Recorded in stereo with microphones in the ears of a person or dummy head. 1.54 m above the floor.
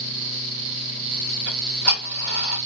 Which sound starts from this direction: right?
Ticking, at 1.5 s.